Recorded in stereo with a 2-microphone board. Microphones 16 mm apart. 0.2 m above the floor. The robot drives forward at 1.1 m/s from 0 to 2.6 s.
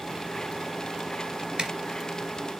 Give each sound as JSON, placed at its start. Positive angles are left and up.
{"t": 1.6, "sound": "a zipper", "side_deg": -65, "distance_m": 2.5}